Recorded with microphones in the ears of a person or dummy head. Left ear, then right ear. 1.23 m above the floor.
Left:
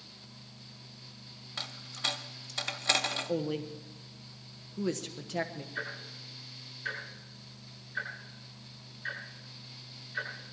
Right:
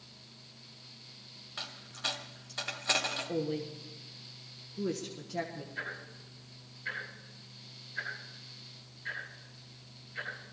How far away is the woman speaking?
About 1.0 m.